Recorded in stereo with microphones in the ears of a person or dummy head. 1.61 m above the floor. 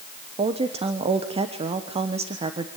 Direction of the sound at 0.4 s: 30° right (ahead or behind).